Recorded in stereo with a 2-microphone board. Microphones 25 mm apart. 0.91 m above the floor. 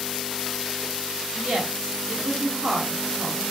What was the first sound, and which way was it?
A woman speaking, 45° right (ahead or behind).